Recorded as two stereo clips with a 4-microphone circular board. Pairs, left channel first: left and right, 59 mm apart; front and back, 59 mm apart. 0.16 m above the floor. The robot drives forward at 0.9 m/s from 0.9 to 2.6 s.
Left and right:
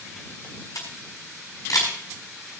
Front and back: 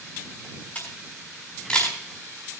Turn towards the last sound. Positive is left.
turn(degrees=80)